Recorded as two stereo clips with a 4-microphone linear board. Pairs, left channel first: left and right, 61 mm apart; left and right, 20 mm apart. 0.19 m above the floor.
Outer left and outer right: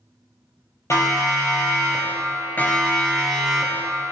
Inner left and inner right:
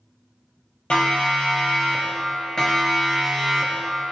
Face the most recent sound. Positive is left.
turn(degrees=-5)  # may be behind; listen again after turning